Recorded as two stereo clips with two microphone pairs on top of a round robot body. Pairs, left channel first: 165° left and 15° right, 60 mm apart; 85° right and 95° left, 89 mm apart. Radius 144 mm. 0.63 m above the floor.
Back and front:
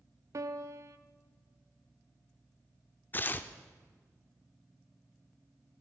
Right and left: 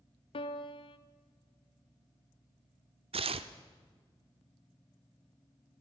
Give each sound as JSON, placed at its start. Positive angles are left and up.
{"t": 0.3, "sound": "a piano", "azimuth_deg": -60, "distance_m": 0.6}
{"t": 3.1, "sound": "tearing paper", "azimuth_deg": 105, "distance_m": 0.8}